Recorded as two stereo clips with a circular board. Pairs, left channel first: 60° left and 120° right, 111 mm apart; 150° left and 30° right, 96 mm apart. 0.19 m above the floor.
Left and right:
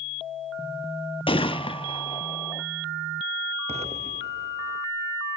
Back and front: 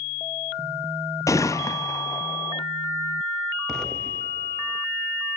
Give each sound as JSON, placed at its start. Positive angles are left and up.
{"t": 1.3, "sound": "a gunshot", "azimuth_deg": 95, "distance_m": 0.8}
{"t": 3.7, "sound": "an explosion", "azimuth_deg": -125, "distance_m": 1.2}